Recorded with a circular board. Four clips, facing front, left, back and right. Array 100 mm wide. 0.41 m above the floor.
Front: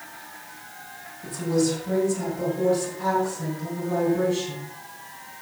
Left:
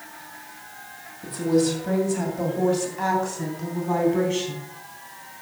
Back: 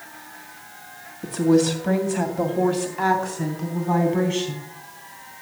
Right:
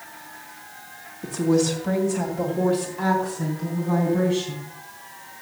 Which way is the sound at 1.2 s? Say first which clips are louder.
Right 1 dB, back 5 dB; 165° right.